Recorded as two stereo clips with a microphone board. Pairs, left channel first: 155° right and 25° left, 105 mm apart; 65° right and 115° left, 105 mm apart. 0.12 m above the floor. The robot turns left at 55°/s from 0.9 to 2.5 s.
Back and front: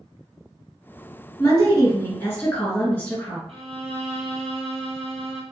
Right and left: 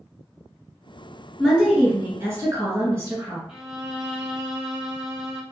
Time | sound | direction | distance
1.4 | a woman speaking | 160° right | 1.6 m
3.5 | a violin | 35° left | 0.8 m